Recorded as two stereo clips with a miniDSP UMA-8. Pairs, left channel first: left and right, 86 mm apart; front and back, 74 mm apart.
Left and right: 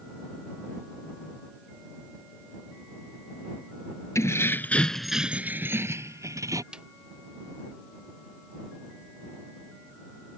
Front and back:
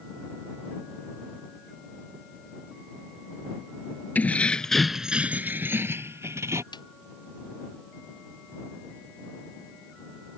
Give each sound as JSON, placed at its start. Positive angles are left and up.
{"t": 4.2, "sound": "keys jangling", "azimuth_deg": 55}
{"t": 6.7, "sound": "a snare drum", "azimuth_deg": -10}